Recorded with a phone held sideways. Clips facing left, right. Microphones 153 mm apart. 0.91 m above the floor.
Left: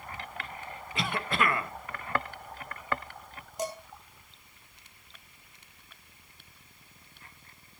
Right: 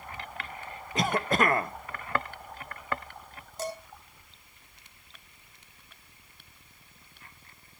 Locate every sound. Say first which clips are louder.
0.9 s a cough: right 5 dB; 40° right (ahead or behind), 0.8 m
3.6 s dishes clattering: left 1 dB; 15° left (ahead or behind), 2.5 m